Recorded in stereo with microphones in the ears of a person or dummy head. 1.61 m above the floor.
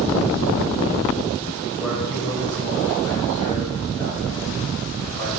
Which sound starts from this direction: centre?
A man speaking, at 1.8 s.